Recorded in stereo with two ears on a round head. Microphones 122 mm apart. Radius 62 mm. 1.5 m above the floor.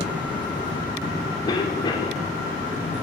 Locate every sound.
1.5 s a cough: 35° left (ahead or behind), 5 m